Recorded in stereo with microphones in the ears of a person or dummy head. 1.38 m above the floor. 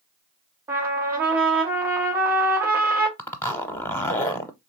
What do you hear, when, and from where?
0.7 s a trumpet: 15° right (ahead or behind), 1.1 m
3.2 s a zipper: 15° left (ahead or behind), 0.6 m